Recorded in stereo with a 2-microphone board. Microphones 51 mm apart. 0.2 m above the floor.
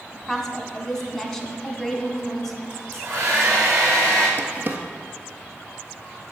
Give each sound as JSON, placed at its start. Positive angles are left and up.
{"t": 0.1, "sound": "a woman speaking", "side_deg": 10, "distance_m": 1.8}
{"t": 2.7, "sound": "a hair dryer", "side_deg": -40, "distance_m": 5.0}
{"t": 4.4, "sound": "a drawer", "side_deg": -40, "distance_m": 1.2}